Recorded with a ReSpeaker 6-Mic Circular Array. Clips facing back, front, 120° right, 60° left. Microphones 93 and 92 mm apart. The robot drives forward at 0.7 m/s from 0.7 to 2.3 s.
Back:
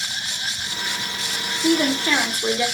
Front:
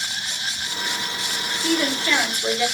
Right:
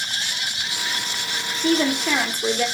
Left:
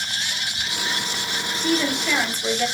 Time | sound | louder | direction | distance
1.6 | a woman speaking | back 4 dB, right 3 dB | 110° right | 1.0 m